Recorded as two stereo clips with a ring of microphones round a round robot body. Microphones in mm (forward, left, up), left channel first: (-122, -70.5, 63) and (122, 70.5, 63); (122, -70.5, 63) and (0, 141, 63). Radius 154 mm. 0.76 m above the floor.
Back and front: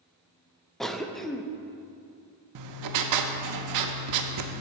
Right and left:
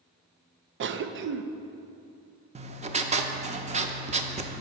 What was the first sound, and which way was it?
A cough, 120° left.